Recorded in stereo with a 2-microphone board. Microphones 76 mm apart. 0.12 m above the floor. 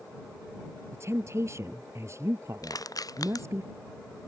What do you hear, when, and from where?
0.9 s a woman speaking: 40° right (ahead or behind)
2.6 s crushing: 55° left (ahead or behind)